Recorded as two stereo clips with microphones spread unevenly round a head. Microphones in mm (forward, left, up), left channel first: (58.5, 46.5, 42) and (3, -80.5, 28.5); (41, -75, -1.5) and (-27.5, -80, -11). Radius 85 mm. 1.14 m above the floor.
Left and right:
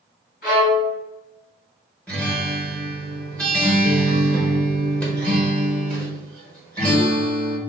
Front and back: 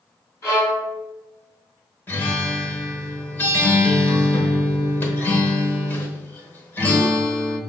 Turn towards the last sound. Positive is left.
turn(degrees=0)